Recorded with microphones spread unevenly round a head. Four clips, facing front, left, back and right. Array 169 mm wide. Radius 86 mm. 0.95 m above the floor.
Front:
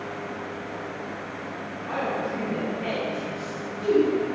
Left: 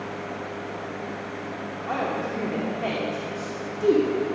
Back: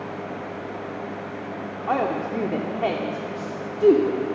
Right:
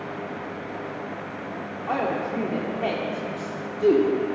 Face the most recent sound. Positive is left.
turn(degrees=-170)